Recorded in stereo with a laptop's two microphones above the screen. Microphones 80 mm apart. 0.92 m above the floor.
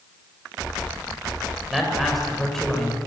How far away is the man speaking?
About 5 m.